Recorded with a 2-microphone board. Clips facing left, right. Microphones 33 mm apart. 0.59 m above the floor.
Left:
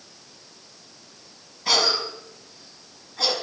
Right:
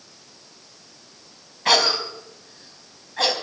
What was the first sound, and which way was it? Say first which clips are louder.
A cough: right 3 dB; 55° right (ahead or behind).